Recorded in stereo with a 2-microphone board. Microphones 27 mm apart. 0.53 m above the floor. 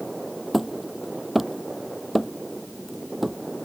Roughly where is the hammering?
Centre.